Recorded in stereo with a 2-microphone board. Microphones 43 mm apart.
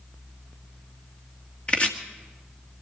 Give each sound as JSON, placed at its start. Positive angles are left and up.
{"t": 1.7, "sound": "chopping", "side_deg": 25, "distance_m": 1.8}